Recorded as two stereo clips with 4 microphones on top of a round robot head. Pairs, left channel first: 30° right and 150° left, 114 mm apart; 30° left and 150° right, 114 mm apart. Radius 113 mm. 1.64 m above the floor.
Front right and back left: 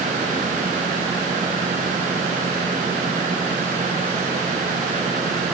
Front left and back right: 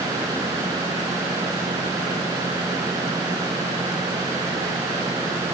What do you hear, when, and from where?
Only background noise.